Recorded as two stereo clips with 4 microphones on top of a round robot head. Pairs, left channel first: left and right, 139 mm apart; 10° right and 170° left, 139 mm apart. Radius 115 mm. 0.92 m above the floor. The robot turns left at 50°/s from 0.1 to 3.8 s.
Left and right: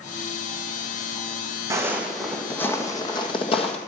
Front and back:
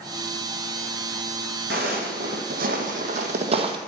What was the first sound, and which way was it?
Footsteps, 155° right.